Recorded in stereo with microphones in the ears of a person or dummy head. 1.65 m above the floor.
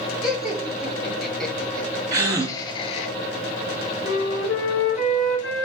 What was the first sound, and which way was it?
Laughter, 5° right (ahead or behind).